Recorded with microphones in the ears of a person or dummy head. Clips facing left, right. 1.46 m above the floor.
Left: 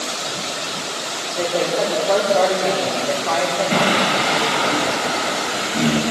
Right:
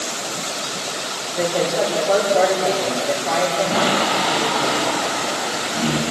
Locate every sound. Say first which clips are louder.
1.4 s a woman speaking: even; 5° right (ahead or behind), 5 m
3.7 s singing: left 1 dB; 30° left (ahead or behind), 3.5 m